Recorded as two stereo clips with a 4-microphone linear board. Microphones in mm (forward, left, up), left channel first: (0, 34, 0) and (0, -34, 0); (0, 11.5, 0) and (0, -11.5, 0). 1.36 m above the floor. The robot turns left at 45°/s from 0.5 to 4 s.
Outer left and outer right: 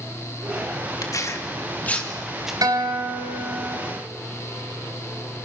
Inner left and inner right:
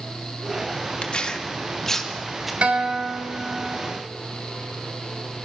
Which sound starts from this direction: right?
A guitar, at 2.6 s.